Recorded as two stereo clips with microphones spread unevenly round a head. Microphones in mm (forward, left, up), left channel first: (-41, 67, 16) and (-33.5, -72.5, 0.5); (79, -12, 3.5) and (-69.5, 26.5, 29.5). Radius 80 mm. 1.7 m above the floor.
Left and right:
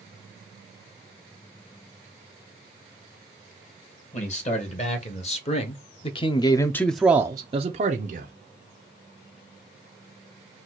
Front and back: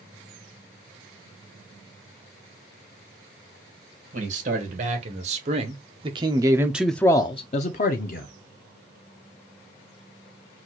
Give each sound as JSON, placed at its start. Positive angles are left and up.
{"t": 4.1, "sound": "a man speaking", "azimuth_deg": 125, "distance_m": 1.8}